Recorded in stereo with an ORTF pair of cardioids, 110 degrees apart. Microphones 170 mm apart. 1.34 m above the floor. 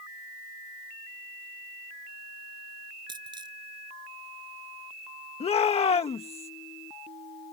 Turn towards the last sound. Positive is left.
turn(degrees=35)